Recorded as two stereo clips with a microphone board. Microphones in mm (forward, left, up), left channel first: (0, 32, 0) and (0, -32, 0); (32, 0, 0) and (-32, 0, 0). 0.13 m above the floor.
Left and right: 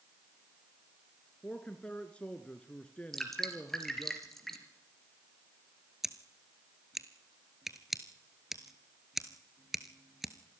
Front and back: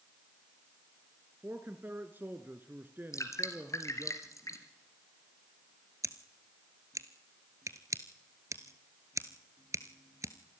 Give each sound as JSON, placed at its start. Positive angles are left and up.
{"t": 1.4, "sound": "a man speaking", "azimuth_deg": 150, "distance_m": 1.3}
{"t": 3.1, "sound": "dripping", "azimuth_deg": 5, "distance_m": 2.5}
{"t": 6.0, "sound": "scissors", "azimuth_deg": -175, "distance_m": 1.2}